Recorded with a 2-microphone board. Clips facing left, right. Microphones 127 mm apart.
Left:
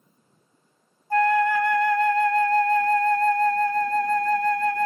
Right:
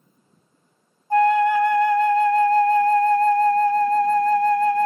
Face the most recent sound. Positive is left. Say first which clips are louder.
# right 4 dB
turn(degrees=-20)  # may be behind; listen again after turning